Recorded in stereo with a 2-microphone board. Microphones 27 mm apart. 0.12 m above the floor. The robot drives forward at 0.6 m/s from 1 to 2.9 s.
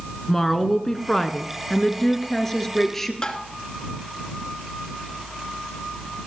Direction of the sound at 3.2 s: 30° left (ahead or behind).